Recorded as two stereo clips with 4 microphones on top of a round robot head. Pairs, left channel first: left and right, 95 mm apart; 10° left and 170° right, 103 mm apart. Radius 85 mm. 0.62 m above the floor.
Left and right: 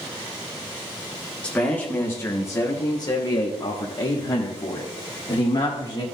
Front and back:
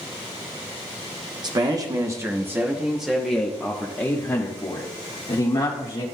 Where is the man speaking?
165° left, 1.3 m; by 6.0 s 50° left, 2 m.